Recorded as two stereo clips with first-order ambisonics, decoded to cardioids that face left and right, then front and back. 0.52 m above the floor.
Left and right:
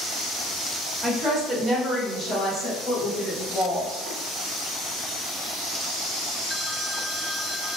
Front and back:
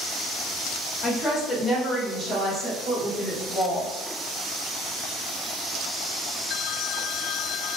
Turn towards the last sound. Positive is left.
turn(degrees=120)